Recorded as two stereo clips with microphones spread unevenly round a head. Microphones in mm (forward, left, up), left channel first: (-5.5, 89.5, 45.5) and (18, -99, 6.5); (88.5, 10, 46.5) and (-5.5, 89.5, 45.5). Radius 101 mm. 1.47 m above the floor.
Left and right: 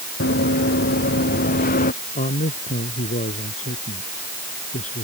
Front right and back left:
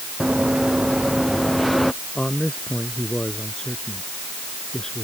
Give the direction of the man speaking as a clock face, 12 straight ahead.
11 o'clock.